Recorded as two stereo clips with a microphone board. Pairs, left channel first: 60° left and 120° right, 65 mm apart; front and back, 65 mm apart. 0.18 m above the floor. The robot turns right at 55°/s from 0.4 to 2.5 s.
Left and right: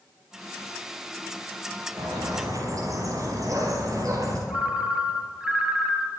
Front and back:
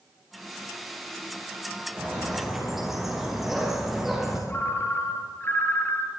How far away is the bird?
About 7.5 m.